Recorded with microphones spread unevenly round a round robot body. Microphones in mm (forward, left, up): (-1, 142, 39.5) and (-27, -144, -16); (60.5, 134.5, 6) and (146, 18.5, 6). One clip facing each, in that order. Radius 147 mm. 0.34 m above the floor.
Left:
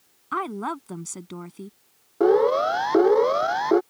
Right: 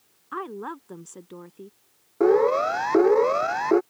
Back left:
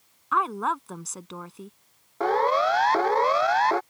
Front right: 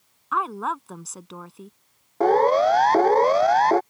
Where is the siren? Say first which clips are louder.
Left 1 dB, front right 5 dB; 5° right.